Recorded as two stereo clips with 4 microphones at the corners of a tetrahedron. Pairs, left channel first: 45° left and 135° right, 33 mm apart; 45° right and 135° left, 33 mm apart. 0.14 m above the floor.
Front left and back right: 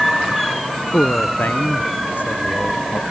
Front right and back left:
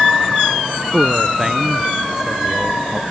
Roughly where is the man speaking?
Ahead left.